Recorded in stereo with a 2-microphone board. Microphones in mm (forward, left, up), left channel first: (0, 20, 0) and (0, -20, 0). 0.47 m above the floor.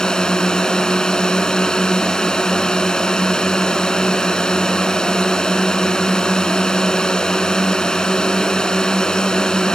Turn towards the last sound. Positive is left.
turn(degrees=20)  # may be behind; listen again after turning